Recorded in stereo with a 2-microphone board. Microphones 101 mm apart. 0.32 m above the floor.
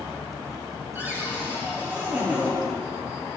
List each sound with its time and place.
0.9 s a cupboard door: 20° right (ahead or behind), 4 m